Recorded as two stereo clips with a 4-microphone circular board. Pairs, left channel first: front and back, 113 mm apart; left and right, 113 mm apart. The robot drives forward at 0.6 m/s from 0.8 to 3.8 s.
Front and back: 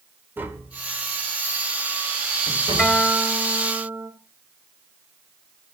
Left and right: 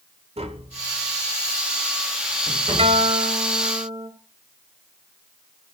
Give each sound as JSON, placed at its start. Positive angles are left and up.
{"t": 0.4, "sound": "tapping", "azimuth_deg": -110, "distance_m": 1.5}
{"t": 2.8, "sound": "a guitar", "azimuth_deg": -95, "distance_m": 2.0}